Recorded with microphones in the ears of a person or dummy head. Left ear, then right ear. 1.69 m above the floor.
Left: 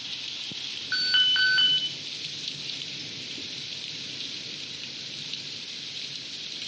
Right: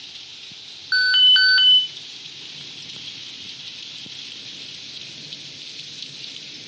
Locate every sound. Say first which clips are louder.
0.9 s an alarm: right 8 dB; 20° right (ahead or behind), 1.1 m